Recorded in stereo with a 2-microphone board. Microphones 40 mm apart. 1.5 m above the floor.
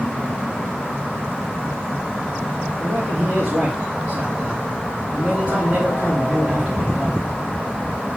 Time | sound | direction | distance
2.8 | a man speaking | 20° right (ahead or behind) | 2.5 m